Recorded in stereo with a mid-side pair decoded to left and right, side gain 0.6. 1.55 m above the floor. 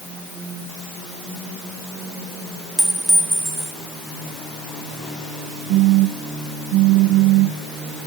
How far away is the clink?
About 3 m.